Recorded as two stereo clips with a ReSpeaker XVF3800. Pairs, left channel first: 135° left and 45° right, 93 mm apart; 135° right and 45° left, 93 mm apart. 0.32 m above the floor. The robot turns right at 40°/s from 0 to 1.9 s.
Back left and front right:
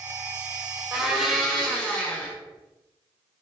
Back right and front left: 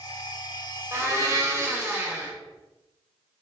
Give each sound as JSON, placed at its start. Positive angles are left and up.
{"t": 0.9, "sound": "a blender", "azimuth_deg": 35, "distance_m": 0.6}